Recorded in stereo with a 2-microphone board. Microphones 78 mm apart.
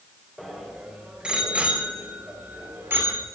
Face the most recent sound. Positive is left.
turn(degrees=-30)  # may be behind; listen again after turning